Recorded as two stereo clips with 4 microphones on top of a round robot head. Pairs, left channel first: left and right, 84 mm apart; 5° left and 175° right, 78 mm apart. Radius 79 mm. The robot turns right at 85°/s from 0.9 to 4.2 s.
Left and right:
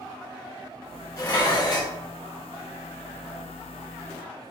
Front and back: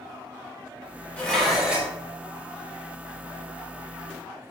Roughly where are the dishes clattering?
Left.